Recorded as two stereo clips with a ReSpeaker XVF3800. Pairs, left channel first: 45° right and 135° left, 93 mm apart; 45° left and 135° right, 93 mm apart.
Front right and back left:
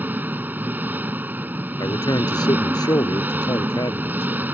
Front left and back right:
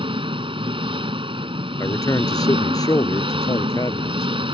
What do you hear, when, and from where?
0.0 s an engine running: 155° right
1.8 s a man speaking: straight ahead